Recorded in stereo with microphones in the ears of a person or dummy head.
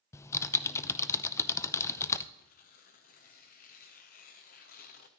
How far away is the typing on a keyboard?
About 0.6 m.